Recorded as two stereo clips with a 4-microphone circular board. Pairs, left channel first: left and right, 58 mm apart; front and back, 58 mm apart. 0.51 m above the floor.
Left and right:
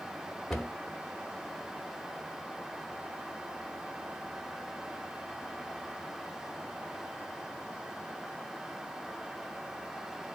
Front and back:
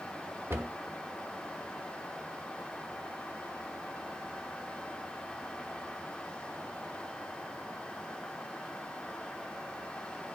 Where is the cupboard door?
Straight behind, 1.1 m.